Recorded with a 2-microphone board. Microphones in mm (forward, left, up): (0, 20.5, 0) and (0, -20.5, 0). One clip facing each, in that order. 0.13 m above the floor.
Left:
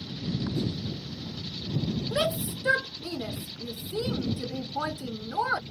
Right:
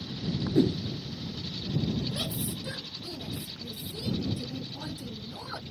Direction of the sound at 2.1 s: 75° left (ahead or behind).